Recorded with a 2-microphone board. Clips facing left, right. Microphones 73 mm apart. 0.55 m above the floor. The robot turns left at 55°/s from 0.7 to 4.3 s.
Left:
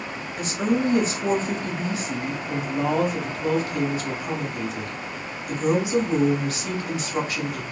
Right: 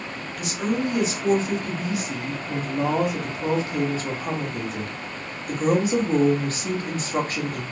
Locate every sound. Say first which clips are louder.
0.4 s a woman speaking: left 2 dB; 115° left, 0.9 m; by 7.6 s 80° right, 0.9 m